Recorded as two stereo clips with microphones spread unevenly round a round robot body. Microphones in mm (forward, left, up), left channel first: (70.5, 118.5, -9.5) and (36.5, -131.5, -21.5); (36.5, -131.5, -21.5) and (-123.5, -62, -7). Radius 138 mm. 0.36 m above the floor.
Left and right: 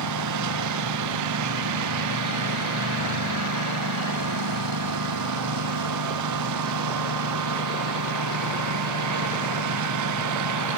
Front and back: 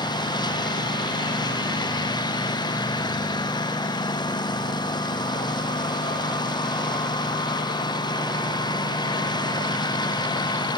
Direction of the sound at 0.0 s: 90° right.